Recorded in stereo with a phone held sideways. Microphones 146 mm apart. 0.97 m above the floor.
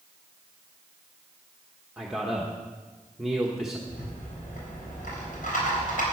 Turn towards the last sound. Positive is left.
turn(degrees=80)